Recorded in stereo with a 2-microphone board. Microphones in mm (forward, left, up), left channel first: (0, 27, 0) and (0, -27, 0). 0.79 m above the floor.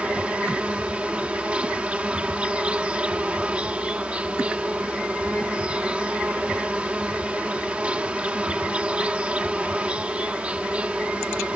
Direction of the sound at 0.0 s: 25° right (ahead or behind).